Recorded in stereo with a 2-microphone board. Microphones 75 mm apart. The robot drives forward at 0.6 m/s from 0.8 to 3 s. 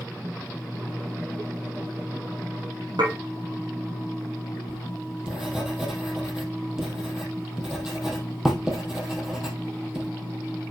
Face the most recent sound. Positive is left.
turn(degrees=-10)  # may be behind; listen again after turning